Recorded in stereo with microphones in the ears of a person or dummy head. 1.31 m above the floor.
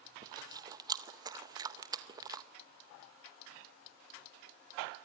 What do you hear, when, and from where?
0.2 s chewing: 20° right (ahead or behind), 0.7 m